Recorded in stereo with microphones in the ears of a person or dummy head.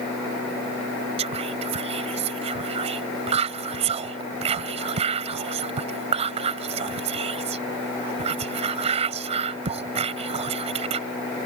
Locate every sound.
1.2 s whispering: 35° right (ahead or behind)